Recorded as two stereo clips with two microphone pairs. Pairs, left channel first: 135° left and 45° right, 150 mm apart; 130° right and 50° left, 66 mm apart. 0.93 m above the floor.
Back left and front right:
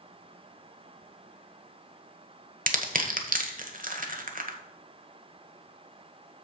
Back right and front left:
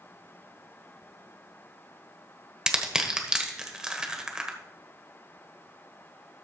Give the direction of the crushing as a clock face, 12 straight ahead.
1 o'clock.